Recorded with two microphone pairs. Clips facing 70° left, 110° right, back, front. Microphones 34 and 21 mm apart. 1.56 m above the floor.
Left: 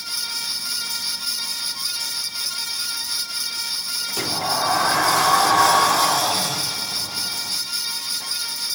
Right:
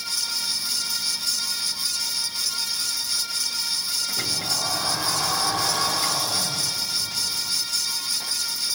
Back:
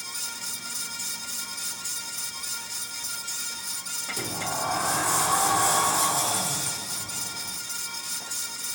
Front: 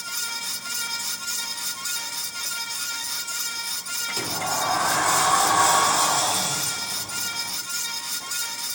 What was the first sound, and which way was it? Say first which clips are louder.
A sliding door: left 8 dB, front 4 dB; 70° left.